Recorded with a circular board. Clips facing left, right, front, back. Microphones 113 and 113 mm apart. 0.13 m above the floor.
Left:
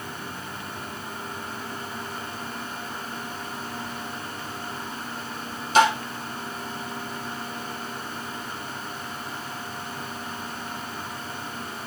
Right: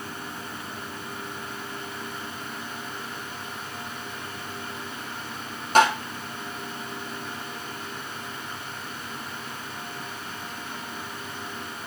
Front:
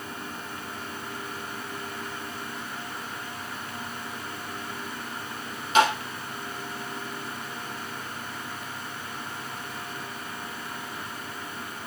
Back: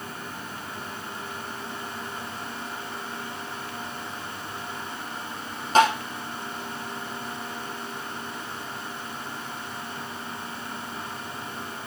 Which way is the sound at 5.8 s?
130° right.